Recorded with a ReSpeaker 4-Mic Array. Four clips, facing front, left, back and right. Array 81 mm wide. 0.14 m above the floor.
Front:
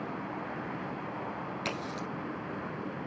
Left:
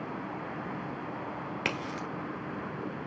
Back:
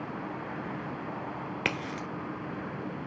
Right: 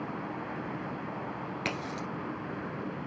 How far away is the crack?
About 1.2 m.